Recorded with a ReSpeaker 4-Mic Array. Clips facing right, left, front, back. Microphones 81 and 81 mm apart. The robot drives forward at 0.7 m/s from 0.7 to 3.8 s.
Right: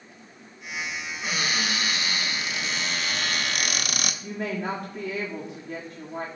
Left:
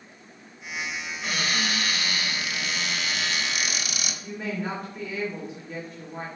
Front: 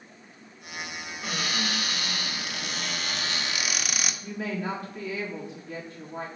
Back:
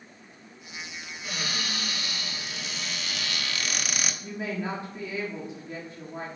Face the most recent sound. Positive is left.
turn(degrees=-115)